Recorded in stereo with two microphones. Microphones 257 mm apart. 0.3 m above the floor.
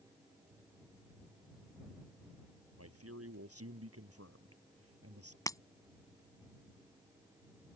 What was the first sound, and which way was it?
A man speaking, 65° right (ahead or behind).